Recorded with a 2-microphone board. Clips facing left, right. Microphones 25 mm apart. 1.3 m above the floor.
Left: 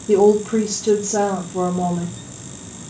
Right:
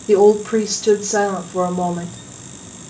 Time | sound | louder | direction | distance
0.1 | a woman speaking | right 2 dB | 75° right (ahead or behind) | 2.0 m